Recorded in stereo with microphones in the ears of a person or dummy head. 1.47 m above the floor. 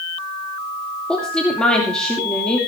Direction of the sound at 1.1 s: 5° left (ahead or behind).